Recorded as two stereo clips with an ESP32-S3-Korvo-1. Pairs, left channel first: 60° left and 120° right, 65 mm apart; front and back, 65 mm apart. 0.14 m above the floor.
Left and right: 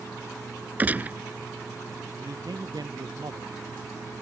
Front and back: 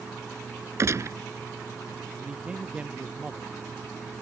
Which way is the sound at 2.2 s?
105° right.